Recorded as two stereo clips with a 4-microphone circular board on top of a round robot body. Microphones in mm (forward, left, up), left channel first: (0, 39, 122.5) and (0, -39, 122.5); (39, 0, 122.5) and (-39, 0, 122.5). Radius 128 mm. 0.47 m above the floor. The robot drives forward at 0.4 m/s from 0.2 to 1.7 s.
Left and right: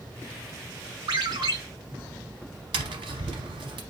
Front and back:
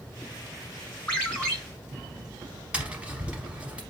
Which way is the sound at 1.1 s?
75° right.